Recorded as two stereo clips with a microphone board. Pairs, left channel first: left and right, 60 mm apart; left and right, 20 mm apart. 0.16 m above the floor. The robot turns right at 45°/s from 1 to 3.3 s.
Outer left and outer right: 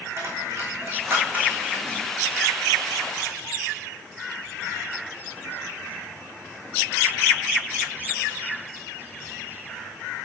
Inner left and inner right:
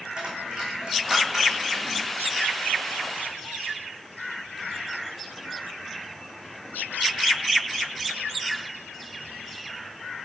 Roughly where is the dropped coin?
Right.